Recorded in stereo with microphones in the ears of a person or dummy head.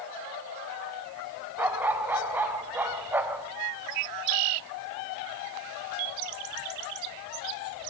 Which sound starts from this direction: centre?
A dog barking, at 1.6 s.